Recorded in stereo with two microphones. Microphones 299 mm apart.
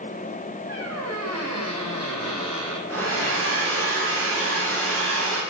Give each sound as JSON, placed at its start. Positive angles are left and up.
{"t": 0.7, "sound": "a squeak", "side_deg": -60, "distance_m": 1.1}
{"t": 2.9, "sound": "a hair dryer", "side_deg": -50, "distance_m": 2.5}